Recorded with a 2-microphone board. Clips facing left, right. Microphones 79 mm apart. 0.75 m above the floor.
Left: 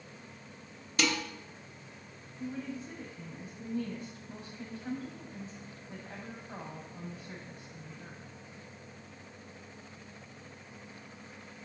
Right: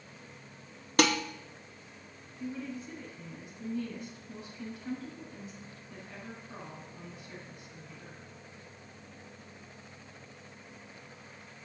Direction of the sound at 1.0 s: 55° right (ahead or behind).